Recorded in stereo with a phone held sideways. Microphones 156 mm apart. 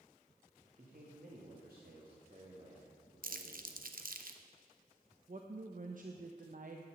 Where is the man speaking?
55° right (ahead or behind), 2 m; by 4.1 s 40° right (ahead or behind), 4 m.